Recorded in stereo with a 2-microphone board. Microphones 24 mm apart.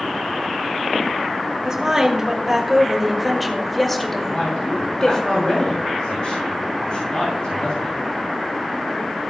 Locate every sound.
1.6 s a woman speaking: 20° right (ahead or behind), 2.5 m; by 5.2 s 30° left (ahead or behind), 2 m
4.3 s a man speaking: 50° left (ahead or behind), 6.5 m